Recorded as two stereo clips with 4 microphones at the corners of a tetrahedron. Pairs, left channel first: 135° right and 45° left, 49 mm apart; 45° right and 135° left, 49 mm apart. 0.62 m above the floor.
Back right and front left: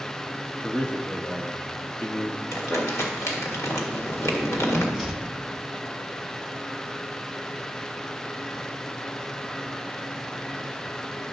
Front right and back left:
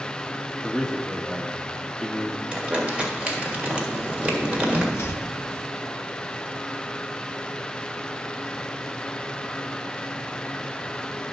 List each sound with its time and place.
0.6 s a man speaking: 120° right, 0.7 m
2.5 s crumpling: 160° right, 1.7 m
4.9 s chopping: 45° right, 0.9 m